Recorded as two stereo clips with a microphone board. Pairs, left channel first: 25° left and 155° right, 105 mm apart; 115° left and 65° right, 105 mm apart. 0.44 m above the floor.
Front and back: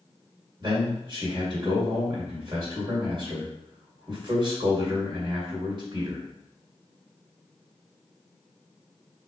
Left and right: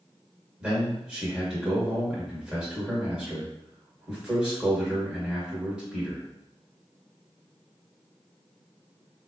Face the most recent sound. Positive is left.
turn(degrees=-145)